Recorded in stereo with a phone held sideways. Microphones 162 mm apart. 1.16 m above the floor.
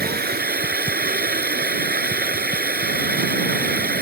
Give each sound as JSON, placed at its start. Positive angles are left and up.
{"t": 0.0, "sound": "running water", "side_deg": -80}